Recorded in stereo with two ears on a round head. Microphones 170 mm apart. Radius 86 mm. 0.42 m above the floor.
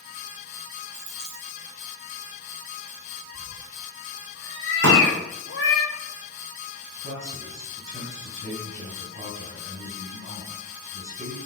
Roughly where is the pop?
Right.